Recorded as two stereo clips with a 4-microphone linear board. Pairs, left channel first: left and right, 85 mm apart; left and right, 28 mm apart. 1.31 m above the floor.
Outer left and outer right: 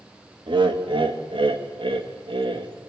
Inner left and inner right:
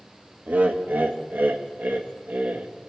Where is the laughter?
70° right (ahead or behind), 2 m.